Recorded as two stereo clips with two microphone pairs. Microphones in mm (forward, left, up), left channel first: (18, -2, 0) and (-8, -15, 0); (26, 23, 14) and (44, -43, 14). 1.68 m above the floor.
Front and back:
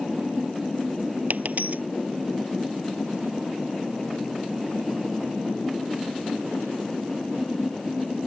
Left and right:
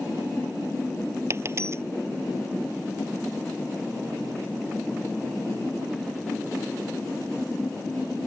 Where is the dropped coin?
125° right.